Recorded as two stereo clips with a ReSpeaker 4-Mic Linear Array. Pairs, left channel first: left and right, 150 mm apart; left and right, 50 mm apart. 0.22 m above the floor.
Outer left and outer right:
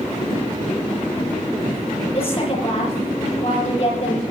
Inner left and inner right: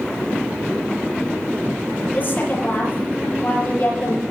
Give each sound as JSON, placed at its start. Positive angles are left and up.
{"t": 2.1, "sound": "a woman speaking", "side_deg": 40, "distance_m": 6.0}